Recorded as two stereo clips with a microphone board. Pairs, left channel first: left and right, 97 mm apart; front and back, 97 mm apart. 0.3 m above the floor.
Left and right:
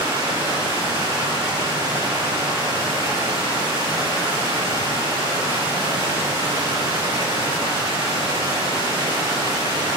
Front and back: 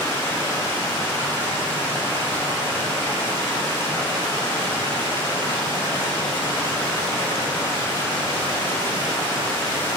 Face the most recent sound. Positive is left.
turn(degrees=-65)